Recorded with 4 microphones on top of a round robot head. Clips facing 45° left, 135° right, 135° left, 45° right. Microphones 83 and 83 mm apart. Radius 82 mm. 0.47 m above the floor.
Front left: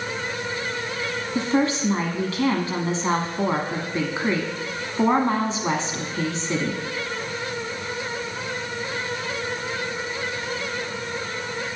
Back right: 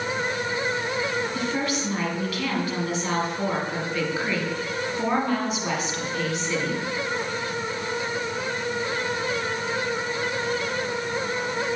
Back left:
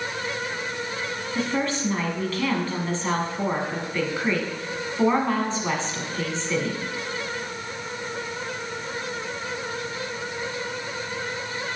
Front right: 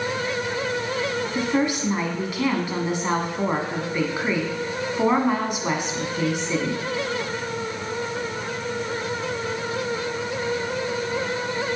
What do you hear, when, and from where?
1.4 s a woman speaking: 20° left, 1.3 m